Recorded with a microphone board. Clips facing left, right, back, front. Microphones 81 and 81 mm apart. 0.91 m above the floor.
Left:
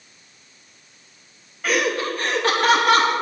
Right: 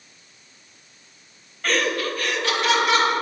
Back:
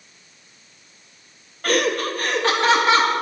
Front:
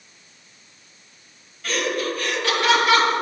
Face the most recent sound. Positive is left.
turn(degrees=120)